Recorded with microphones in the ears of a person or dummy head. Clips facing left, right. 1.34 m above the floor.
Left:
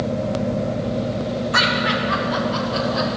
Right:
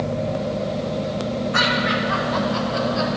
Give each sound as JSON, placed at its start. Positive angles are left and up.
{"t": 1.5, "sound": "laughter", "side_deg": 75, "distance_m": 1.4}